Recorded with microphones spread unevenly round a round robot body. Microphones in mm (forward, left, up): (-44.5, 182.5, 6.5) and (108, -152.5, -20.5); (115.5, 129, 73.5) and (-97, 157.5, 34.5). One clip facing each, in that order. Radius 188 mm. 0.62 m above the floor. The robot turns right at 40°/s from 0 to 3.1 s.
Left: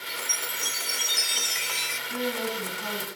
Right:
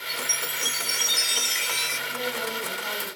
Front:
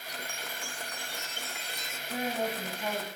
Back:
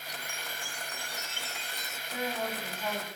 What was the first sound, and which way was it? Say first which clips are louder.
A chime: right 4 dB, front 2 dB; 125° right.